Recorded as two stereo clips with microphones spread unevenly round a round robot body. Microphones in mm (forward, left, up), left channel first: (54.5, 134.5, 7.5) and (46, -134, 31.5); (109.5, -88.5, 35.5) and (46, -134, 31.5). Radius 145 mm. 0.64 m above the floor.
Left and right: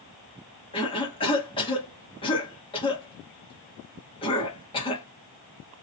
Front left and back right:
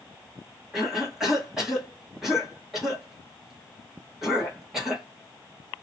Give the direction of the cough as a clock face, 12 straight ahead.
7 o'clock.